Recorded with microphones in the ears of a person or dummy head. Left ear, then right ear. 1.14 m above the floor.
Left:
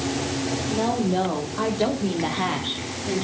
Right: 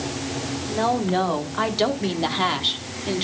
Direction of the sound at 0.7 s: 55° right (ahead or behind).